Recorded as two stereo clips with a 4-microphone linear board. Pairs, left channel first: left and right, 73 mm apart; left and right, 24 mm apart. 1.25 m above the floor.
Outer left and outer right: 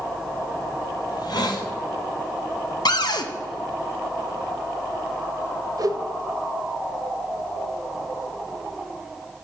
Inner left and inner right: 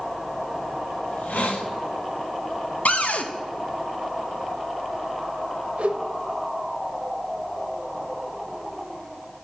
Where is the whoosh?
55° right (ahead or behind), 0.6 m.